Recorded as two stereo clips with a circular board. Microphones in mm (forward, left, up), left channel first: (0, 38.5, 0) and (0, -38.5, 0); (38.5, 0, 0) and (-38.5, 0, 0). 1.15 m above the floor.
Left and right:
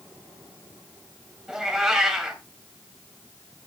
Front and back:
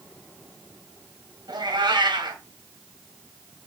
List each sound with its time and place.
1.5 s a cat meowing: 170° right, 1.9 m